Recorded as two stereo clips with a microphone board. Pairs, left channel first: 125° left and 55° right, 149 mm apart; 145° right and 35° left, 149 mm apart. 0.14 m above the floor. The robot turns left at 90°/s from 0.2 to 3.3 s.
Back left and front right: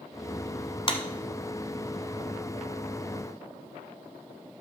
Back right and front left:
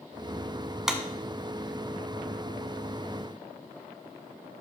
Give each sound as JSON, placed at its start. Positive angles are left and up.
{"t": 0.9, "sound": "a clap", "azimuth_deg": 120, "distance_m": 1.0}